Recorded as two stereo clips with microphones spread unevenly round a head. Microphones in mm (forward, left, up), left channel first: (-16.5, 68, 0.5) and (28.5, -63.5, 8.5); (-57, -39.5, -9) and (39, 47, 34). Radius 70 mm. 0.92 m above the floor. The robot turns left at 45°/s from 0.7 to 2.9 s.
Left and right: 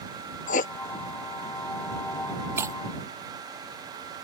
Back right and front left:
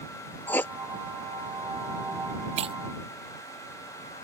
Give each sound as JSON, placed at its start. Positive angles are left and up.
{"t": 0.5, "sound": "writing", "azimuth_deg": 145}
{"t": 2.6, "sound": "breaking glass", "azimuth_deg": 0}